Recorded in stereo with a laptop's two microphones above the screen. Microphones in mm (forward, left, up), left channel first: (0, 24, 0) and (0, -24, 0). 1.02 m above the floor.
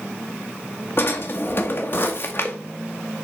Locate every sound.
1.0 s a drawer: 45° left (ahead or behind), 0.8 m